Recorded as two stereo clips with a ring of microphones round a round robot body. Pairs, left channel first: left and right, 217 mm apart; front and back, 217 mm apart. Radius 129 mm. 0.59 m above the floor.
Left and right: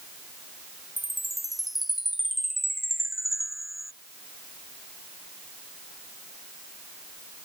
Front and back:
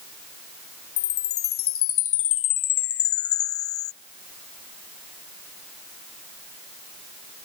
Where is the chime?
Straight ahead.